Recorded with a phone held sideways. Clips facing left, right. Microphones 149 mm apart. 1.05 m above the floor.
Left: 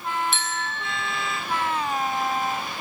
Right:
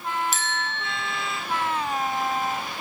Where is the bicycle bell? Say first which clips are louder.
Even; 40° right (ahead or behind), 5 m.